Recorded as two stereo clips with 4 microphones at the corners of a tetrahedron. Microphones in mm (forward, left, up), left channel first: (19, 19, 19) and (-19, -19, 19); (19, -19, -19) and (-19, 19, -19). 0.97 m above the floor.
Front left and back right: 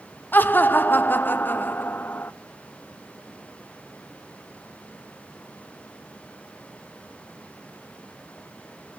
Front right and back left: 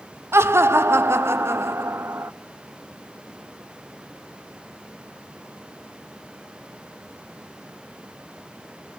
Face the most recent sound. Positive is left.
turn(degrees=100)